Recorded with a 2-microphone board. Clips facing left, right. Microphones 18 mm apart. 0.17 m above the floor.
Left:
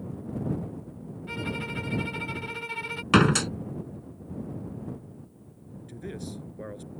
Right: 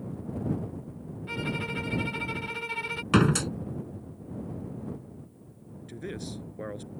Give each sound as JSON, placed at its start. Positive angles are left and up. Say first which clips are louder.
{"t": 1.3, "sound": "a violin", "louder": "right 1 dB", "side_deg": 0}
{"t": 3.1, "sound": "a door slam", "louder": "left 3 dB", "side_deg": 25}
{"t": 5.9, "sound": "a man speaking", "louder": "right 1 dB", "side_deg": -20}